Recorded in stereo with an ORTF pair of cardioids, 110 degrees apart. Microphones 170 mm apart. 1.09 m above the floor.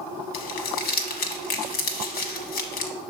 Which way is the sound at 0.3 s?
70° left.